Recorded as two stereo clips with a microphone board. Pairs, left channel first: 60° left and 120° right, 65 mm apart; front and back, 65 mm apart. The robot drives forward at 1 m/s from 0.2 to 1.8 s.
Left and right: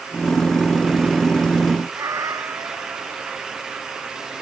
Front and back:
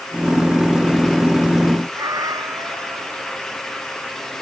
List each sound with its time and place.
1.9 s a cat meowing: 155° right